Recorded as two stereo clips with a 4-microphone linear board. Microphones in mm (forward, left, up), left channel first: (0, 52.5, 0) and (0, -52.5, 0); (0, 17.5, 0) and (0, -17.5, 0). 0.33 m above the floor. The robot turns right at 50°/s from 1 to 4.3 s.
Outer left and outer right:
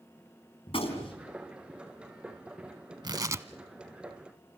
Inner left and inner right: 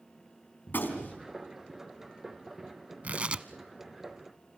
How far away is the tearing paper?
About 0.7 m.